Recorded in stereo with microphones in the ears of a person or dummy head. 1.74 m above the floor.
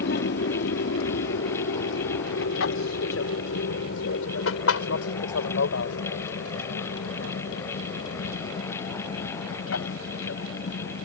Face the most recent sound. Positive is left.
turn(degrees=75)  # may be behind; listen again after turning